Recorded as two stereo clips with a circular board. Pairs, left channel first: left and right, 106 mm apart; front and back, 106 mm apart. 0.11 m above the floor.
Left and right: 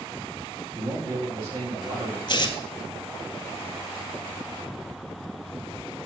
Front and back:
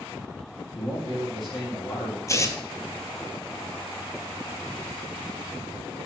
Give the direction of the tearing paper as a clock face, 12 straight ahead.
10 o'clock.